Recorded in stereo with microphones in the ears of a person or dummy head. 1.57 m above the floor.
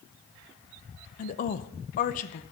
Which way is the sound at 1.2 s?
45° left (ahead or behind).